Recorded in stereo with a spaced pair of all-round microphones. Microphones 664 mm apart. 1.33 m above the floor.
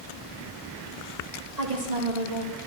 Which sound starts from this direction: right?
A woman speaking, at 1.6 s.